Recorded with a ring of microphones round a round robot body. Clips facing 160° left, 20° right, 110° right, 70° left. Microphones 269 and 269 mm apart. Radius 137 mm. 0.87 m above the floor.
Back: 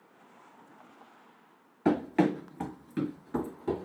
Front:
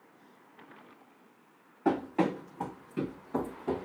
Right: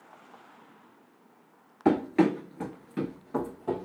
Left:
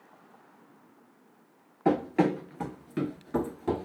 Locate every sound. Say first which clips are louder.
1.9 s running footsteps: back 3 dB, right 2 dB; 175° right, 1.1 m; by 3.9 s 95° left, 1.1 m